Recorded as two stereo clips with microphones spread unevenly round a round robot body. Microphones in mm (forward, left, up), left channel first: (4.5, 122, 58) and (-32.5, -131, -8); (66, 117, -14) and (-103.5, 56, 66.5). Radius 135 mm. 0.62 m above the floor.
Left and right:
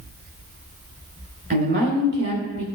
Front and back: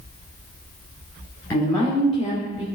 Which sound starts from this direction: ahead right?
A woman speaking, at 1.5 s.